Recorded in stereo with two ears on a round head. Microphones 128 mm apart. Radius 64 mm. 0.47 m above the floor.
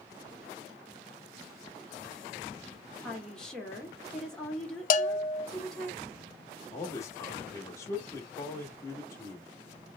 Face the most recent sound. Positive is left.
turn(degrees=20)  # may be behind; listen again after turning